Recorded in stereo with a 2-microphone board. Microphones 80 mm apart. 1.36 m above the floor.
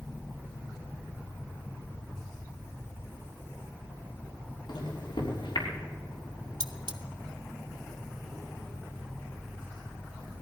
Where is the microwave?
80° left, 3.5 m.